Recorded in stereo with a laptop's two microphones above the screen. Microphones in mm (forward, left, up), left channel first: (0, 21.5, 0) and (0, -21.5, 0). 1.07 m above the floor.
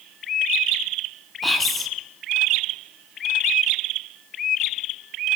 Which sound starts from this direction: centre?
Whispering, at 1.4 s.